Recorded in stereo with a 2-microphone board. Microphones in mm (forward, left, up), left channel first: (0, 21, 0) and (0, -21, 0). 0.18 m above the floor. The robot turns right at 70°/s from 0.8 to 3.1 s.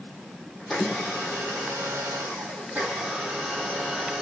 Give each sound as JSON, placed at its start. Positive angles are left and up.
{"t": 0.6, "sound": "a blender", "azimuth_deg": 175, "distance_m": 8.5}